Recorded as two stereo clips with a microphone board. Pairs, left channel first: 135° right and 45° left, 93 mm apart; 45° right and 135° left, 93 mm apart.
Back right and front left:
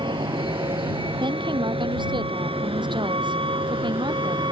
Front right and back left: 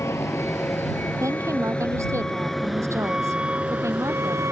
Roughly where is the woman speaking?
Left.